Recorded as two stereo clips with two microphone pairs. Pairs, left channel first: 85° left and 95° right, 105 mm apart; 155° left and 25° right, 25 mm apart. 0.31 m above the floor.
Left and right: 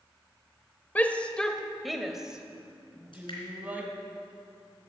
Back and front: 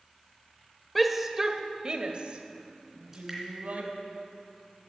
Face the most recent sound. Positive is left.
turn(degrees=50)